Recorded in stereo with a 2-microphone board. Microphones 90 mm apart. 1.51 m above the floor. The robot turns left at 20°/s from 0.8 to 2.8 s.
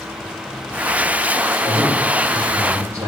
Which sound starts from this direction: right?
A man speaking, at 1.6 s.